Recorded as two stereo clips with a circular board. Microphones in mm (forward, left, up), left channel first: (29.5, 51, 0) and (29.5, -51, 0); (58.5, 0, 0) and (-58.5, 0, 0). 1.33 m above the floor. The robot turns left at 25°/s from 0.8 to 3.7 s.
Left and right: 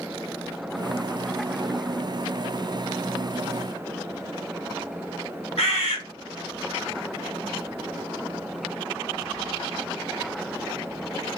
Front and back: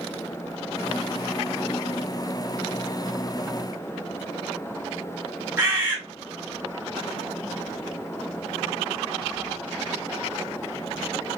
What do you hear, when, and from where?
5.6 s a bird: 110° left, 1.2 m